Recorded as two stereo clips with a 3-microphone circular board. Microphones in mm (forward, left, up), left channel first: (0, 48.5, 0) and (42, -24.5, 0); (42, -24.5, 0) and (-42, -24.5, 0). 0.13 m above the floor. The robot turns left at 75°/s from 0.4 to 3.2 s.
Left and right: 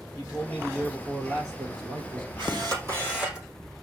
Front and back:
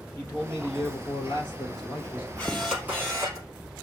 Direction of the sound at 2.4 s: 75° right.